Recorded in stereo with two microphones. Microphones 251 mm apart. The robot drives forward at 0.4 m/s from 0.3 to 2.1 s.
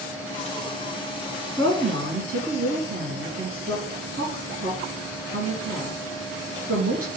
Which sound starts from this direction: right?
A woman speaking, at 1.6 s.